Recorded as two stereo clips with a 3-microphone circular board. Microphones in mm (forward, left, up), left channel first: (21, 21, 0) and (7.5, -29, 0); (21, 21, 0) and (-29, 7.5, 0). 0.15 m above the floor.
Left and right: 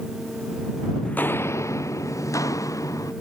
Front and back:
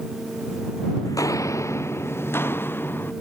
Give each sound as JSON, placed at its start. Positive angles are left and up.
{"t": 1.1, "sound": "footsteps", "azimuth_deg": 5}